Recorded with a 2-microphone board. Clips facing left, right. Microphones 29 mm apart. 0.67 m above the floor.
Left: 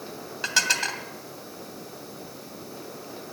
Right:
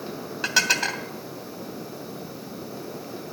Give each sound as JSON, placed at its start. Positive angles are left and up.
{"t": 0.4, "sound": "dishes clattering", "side_deg": -5, "distance_m": 2.5}